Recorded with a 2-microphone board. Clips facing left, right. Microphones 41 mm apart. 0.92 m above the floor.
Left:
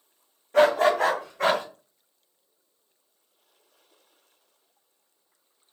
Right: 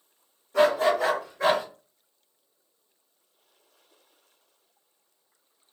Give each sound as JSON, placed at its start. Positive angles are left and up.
{"t": 0.5, "sound": "a dog barking", "side_deg": 55, "distance_m": 1.1}